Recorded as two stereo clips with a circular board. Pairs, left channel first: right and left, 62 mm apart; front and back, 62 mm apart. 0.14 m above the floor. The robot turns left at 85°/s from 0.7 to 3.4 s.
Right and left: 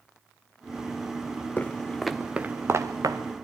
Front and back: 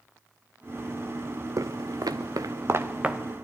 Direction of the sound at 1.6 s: 155° right.